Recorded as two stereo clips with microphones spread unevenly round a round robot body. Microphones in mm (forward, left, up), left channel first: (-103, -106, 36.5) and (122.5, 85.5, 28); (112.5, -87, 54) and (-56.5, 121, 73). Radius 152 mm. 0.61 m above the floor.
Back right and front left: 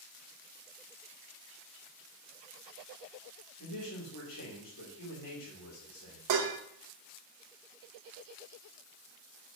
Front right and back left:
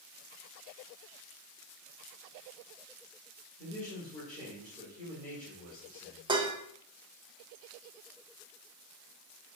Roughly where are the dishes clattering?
Ahead left.